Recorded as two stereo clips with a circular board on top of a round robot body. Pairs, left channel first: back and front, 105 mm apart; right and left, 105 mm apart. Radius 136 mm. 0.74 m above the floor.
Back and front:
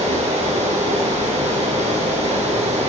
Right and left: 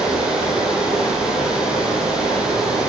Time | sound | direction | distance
0.0 | running water | 10° left | 9 m